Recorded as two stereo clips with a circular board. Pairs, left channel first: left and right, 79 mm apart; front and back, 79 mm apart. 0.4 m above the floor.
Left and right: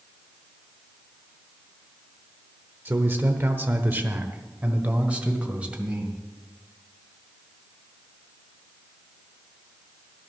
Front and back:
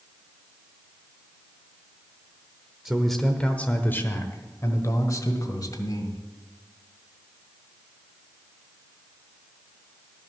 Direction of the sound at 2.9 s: 100° right.